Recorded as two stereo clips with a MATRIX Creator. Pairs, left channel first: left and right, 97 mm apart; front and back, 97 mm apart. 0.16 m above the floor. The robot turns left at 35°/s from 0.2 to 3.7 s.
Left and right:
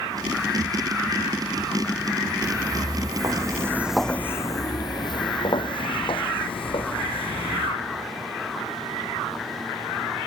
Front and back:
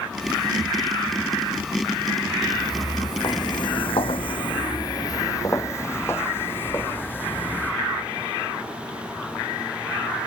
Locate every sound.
2.4 s footsteps: 30° right, 1.1 m; by 7.7 s 70° left, 2.5 m